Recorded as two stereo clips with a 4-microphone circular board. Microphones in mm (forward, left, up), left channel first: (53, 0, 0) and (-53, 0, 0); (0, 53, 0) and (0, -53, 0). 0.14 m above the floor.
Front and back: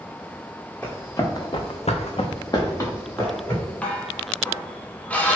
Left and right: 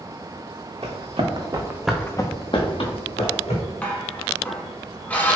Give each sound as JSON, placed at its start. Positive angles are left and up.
{"t": 0.8, "sound": "running footsteps", "azimuth_deg": -70, "distance_m": 1.1}
{"t": 3.8, "sound": "dishes clattering", "azimuth_deg": 50, "distance_m": 0.8}